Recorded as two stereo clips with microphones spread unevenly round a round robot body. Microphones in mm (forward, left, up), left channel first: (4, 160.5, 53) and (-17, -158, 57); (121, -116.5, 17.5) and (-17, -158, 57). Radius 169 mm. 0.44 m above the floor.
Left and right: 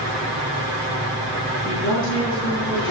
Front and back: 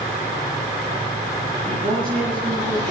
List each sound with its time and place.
1.6 s a woman speaking: 140° left, 5 m